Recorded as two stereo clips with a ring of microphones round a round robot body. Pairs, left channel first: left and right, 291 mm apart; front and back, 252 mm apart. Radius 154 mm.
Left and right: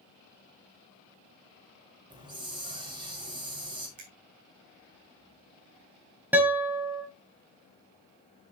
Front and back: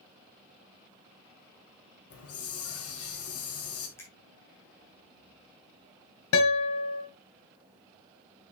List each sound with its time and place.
2.1 s a hiss: 15° right, 1.6 m
4.0 s a finger snap: 80° right, 2.5 m
6.3 s a guitar: 5° right, 1.3 m